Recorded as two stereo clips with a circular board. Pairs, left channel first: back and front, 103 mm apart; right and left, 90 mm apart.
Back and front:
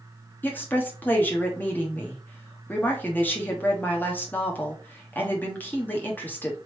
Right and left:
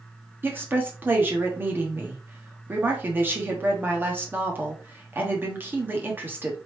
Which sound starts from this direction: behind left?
A woman speaking, at 0.4 s.